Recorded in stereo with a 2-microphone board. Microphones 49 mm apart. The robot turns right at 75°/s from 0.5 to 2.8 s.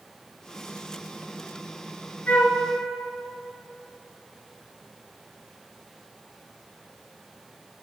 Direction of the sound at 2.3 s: 40° left (ahead or behind).